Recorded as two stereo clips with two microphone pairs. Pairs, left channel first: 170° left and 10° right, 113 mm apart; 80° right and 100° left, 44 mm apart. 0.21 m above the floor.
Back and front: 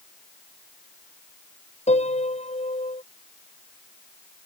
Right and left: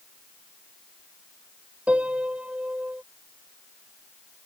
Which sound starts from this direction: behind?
A piano, at 1.9 s.